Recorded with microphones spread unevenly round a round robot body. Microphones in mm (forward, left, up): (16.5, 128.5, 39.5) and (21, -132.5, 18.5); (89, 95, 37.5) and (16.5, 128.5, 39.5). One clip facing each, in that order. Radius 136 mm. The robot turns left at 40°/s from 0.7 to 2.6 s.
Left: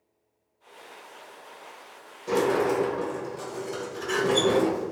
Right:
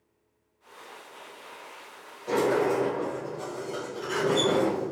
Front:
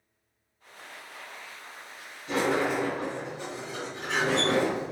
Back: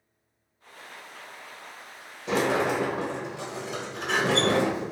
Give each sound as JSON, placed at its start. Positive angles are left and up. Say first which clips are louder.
{"t": 2.3, "sound": "a sliding door", "louder": "left 1 dB, back 2 dB", "azimuth_deg": 165, "distance_m": 0.9}